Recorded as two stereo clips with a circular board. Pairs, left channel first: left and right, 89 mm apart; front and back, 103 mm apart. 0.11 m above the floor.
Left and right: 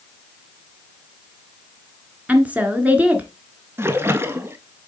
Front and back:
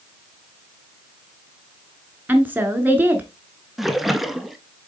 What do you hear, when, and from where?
2.3 s a woman speaking: 135° right, 1.3 m
3.8 s a splash: 95° right, 0.7 m